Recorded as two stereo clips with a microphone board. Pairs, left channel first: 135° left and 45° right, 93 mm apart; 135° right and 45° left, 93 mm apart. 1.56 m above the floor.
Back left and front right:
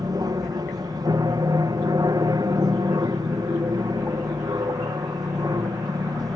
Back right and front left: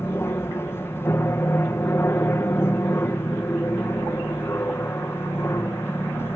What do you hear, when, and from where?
0.0 s an aircraft: 80° right